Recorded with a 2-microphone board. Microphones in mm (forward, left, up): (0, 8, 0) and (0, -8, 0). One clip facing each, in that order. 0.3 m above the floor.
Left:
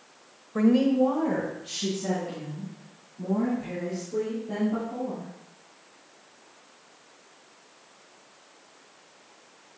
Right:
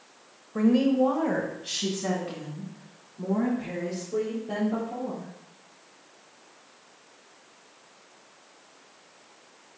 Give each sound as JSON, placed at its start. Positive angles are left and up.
{"t": 0.6, "sound": "a woman speaking", "side_deg": 20, "distance_m": 1.1}